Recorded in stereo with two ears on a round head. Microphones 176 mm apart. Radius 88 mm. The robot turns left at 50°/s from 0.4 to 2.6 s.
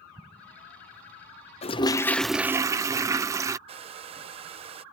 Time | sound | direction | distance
0.2 | an explosion | 10° right (ahead or behind) | ?
1.6 | a toilet flushing | 35° left | ?
3.7 | a hair dryer | 30° right (ahead or behind) | ?